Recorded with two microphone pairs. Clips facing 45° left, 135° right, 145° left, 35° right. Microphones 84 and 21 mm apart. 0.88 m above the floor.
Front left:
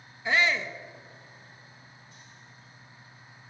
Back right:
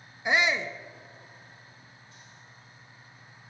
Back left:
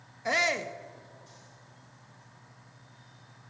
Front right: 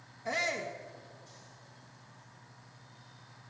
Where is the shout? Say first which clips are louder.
Even, back left 6 dB; 155° left, 0.6 m.